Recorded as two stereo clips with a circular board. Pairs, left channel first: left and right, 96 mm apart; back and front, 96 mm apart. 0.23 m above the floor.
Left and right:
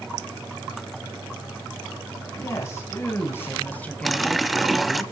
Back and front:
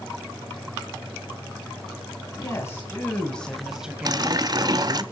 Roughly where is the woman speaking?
Behind left.